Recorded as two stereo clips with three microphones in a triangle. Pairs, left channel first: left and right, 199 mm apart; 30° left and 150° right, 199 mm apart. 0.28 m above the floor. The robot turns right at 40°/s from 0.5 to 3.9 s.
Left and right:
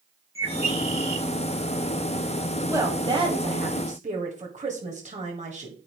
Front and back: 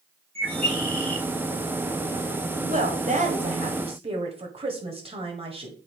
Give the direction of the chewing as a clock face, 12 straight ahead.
No chewing in this recording.